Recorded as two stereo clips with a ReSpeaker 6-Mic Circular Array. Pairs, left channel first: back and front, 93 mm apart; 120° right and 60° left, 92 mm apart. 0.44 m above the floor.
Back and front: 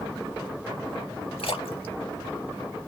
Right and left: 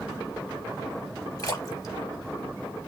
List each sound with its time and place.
1.4 s a splash: 170° right, 0.6 m